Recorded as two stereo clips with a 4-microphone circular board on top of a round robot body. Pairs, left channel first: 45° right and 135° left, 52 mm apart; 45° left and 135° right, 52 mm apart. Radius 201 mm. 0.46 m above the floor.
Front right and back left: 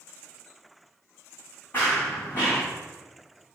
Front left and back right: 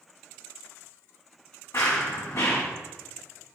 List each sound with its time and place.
1.7 s running footsteps: 10° left, 2.5 m